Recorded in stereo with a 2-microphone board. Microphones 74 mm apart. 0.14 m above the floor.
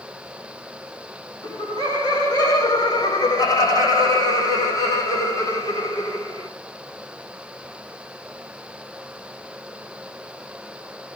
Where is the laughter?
60° left (ahead or behind), 7 m; by 6.5 s 40° left (ahead or behind), 6 m.